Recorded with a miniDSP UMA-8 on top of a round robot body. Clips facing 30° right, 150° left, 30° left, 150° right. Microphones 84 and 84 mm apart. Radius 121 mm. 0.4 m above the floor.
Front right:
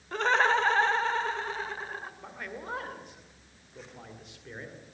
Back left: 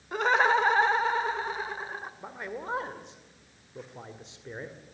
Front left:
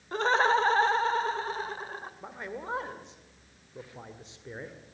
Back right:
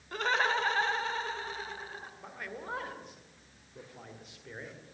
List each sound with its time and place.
0.1 s laughter: 75° left, 1.4 m
2.2 s a man speaking: 90° left, 2 m